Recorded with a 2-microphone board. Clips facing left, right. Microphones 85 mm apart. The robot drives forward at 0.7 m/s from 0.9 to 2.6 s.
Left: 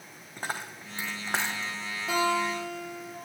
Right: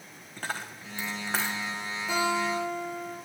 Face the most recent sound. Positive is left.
turn(degrees=70)  # may be behind; listen again after turning